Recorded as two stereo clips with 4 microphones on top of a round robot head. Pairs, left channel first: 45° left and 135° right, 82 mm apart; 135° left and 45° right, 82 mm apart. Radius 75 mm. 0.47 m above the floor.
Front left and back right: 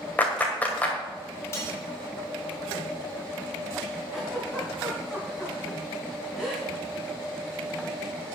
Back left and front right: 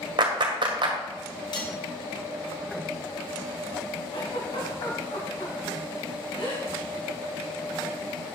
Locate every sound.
0.2 s a clap: 25° right, 2.0 m
1.5 s cutlery clinking: 105° left, 3 m
4.1 s a giggle: 140° left, 3.5 m